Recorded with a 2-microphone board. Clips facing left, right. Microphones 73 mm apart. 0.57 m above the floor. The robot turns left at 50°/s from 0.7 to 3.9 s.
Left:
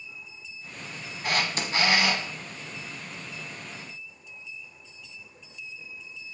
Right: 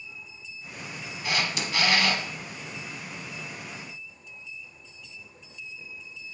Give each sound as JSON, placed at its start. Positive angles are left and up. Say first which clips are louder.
{"t": 1.2, "sound": "a camera shutter", "louder": "left 1 dB", "azimuth_deg": 60, "distance_m": 0.8}